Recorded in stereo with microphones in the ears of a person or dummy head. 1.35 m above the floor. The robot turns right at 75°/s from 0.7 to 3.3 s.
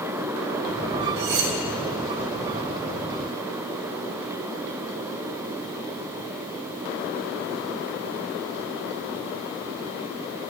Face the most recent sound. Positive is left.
turn(degrees=25)